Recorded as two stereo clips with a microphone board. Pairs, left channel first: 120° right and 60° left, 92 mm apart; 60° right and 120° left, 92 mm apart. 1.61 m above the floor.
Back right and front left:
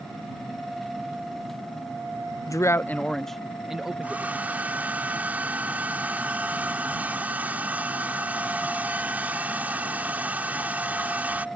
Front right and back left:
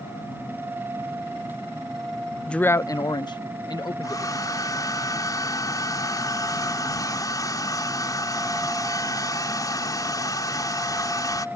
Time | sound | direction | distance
2.5 | a man speaking | 140° right | ?
4.0 | a hair dryer | 10° right | ?